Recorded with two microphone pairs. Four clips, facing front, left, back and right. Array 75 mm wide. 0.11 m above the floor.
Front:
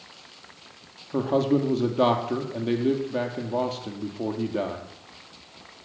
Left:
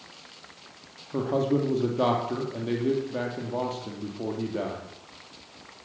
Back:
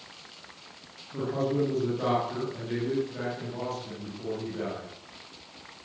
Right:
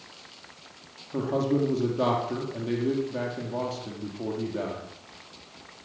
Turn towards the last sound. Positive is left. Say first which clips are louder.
# left 1 dB, front 6 dB
turn(degrees=20)